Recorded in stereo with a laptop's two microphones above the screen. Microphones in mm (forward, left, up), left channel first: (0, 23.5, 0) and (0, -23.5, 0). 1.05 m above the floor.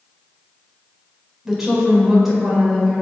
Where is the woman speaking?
5° right (ahead or behind), 3.5 m.